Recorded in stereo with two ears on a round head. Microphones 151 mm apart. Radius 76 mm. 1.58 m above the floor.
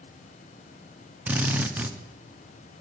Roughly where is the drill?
Centre.